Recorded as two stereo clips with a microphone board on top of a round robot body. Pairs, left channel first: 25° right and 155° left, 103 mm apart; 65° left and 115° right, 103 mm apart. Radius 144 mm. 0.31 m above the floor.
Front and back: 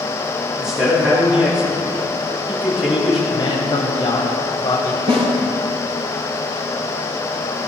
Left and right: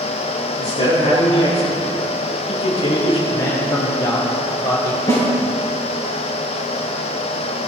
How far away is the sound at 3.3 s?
About 3 m.